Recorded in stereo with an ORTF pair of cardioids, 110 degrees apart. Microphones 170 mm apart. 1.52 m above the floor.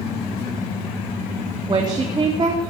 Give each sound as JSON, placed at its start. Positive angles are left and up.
{"t": 1.7, "sound": "a woman speaking", "azimuth_deg": -25, "distance_m": 4.0}